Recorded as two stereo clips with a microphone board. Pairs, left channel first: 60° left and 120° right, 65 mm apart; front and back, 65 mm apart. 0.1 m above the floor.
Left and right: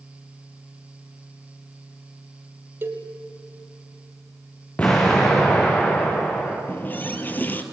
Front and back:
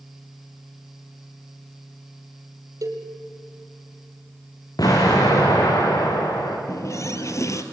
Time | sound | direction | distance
2.8 | a cowbell | 165° right | 2.5 m
4.8 | an explosion | 10° right | 5 m
6.7 | a running tap | 10° left | 1.7 m